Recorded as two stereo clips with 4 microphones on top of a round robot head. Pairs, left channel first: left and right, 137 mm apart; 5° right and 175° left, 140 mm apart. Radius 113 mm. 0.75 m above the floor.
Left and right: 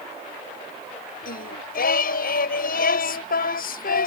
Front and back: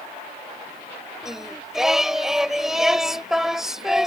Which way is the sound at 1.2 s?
85° left.